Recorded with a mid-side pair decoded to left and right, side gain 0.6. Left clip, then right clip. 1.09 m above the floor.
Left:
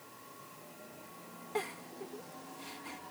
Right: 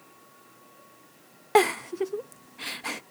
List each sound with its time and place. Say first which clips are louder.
1.6 s a giggle: right 17 dB; 70° right